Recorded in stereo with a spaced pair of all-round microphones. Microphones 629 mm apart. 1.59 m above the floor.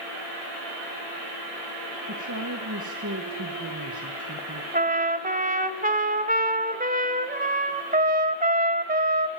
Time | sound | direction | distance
2.1 | a woman speaking | 30° right (ahead or behind) | 1.7 m
4.7 | a trumpet | 15° right (ahead or behind) | 1.5 m